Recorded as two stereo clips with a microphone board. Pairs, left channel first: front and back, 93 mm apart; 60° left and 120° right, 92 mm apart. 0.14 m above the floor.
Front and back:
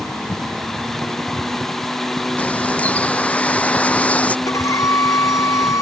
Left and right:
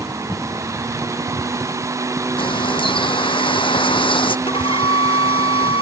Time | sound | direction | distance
2.4 | a bird | 75° left | ?
4.5 | a violin | 55° left | ?